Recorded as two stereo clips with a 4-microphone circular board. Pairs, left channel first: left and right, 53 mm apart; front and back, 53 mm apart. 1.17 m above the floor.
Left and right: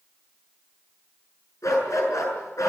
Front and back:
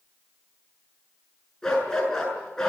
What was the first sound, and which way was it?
A dog barking, 80° left.